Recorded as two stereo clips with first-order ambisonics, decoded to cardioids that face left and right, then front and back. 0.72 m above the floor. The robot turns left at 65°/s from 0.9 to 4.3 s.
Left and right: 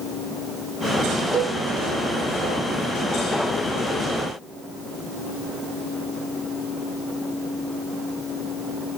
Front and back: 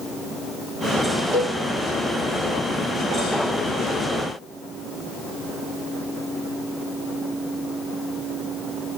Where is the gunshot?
No gunshot in this recording.